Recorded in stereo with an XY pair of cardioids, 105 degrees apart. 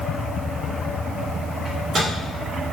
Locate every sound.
1.6 s a microwave: 50° right, 2.5 m